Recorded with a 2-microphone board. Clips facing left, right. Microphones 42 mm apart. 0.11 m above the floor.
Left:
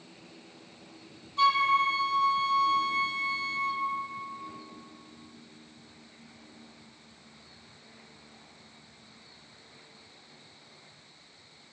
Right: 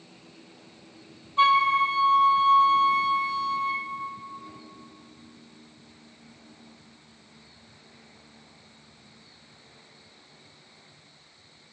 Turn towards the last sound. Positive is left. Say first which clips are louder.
# right 4 dB
turn(degrees=-30)  # may be behind; listen again after turning